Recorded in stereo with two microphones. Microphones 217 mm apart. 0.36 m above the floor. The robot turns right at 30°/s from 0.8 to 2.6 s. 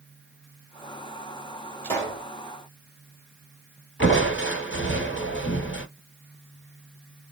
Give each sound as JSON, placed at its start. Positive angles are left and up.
{"t": 1.8, "sound": "a pop", "side_deg": 15, "distance_m": 1.9}
{"t": 4.0, "sound": "crushing", "side_deg": 65, "distance_m": 1.4}